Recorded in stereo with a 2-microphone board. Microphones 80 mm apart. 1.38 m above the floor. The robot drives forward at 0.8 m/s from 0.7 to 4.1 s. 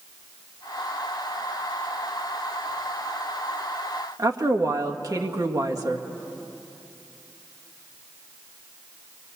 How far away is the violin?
I don't hear a violin.